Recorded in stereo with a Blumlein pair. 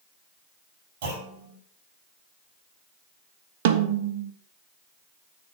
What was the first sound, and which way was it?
A clunk, 55° right.